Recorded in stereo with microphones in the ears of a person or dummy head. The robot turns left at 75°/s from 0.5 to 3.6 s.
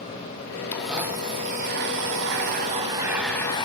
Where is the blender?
15° left, 1.2 m; by 3.6 s 155° left, 1.2 m.